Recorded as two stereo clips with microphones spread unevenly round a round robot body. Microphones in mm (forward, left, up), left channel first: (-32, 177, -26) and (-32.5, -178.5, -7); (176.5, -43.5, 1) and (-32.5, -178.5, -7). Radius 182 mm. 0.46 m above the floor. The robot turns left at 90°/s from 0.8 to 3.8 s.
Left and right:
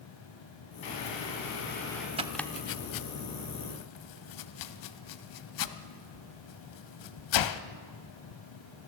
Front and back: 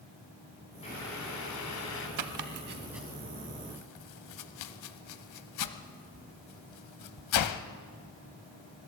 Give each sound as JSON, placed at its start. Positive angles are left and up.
{"t": 0.8, "sound": "boiling", "azimuth_deg": 110, "distance_m": 4.5}
{"t": 2.2, "sound": "chopping", "azimuth_deg": -165, "distance_m": 0.8}